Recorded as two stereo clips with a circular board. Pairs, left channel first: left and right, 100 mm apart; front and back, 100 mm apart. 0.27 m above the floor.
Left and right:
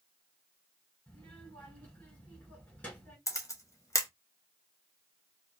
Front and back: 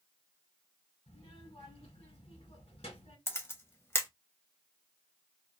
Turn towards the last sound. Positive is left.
turn(degrees=50)